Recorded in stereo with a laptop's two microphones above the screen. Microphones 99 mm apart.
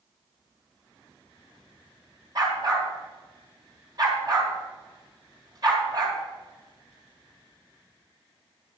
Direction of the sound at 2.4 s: 45° right (ahead or behind).